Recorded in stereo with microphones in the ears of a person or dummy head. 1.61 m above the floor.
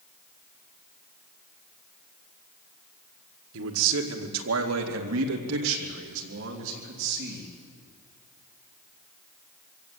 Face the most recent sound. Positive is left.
turn(degrees=-60)  # may be behind; listen again after turning